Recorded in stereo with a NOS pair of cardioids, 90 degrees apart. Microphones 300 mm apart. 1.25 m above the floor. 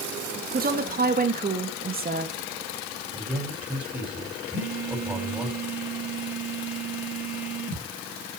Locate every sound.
0.5 s a woman speaking: 30° right, 2 m
3.1 s a man speaking: 5° right, 5.5 m
4.5 s a phone buzzing: 5° right, 5.5 m